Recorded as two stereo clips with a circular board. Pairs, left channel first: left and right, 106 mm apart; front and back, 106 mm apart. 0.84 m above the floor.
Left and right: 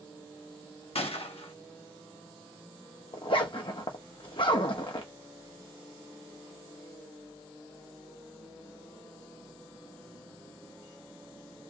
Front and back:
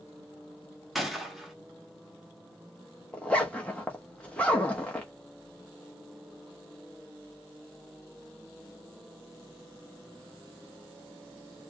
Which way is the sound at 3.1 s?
75° left.